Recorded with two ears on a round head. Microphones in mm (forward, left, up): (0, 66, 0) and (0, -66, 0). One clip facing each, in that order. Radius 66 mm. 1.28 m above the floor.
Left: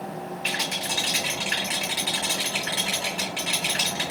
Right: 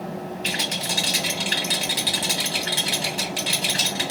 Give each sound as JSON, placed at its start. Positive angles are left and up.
{"t": 0.4, "sound": "a rattle", "side_deg": -50, "distance_m": 2.0}